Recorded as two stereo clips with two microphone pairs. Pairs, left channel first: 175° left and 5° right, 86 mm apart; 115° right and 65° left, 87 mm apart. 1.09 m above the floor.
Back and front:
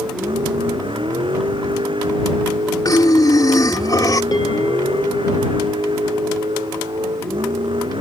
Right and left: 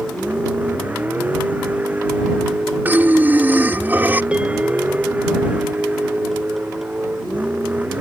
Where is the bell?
140° left.